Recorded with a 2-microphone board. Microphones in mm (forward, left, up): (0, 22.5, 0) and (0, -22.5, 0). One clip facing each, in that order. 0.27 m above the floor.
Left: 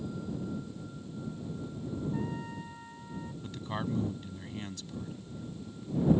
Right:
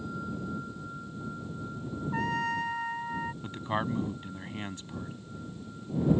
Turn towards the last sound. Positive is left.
turn(degrees=-30)  # may be behind; listen again after turning